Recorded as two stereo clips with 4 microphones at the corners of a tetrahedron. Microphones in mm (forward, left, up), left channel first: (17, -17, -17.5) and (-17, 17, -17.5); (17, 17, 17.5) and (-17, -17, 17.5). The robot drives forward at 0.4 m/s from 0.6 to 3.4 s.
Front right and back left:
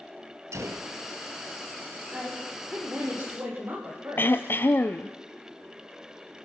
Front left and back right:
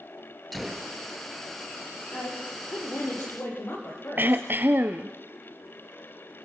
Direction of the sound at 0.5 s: 135° left.